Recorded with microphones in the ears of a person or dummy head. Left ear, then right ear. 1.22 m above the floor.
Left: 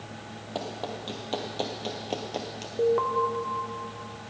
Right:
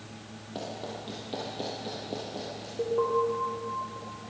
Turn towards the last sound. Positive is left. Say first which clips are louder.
# left 3 dB
turn(degrees=40)  # may be behind; listen again after turning